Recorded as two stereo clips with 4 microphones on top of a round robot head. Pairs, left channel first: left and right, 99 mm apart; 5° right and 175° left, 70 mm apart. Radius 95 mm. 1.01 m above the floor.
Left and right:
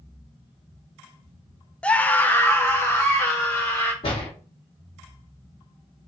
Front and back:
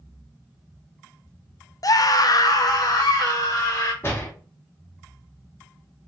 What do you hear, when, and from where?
1.8 s a scream: 15° left, 0.6 m; by 3.9 s 25° left, 2 m
4.0 s a door slam: 55° left, 1.3 m